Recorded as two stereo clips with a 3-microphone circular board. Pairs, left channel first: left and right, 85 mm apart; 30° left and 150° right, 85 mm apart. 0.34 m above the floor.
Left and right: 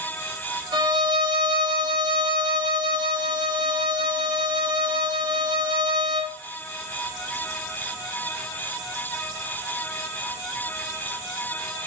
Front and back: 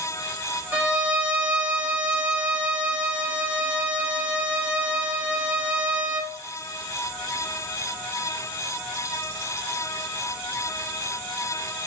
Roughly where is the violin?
Right.